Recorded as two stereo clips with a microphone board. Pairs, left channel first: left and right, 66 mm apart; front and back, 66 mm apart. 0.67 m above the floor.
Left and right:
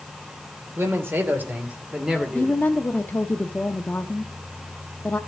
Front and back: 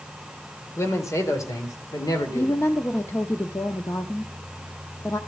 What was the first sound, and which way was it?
A man speaking, 45° right.